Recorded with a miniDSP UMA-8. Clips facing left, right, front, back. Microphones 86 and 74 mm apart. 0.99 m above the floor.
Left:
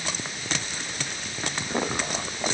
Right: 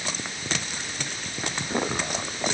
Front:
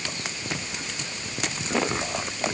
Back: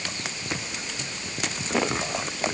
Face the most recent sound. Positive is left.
No sound to turn to.